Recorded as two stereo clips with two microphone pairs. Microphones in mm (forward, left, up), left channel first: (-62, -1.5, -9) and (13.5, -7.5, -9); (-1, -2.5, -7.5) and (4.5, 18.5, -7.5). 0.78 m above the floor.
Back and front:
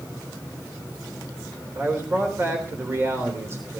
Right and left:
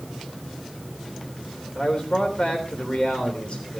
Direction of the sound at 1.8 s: 60° right.